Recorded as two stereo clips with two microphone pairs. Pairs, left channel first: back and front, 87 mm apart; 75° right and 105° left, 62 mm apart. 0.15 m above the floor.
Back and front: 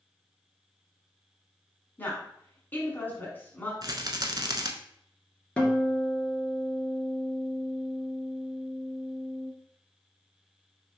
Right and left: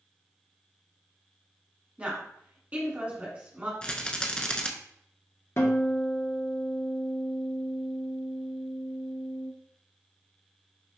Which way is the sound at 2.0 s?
140° left.